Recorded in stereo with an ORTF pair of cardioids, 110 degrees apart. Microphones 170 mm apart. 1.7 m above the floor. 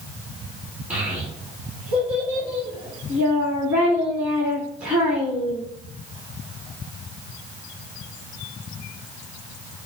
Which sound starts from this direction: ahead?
A child speaking, at 0.9 s.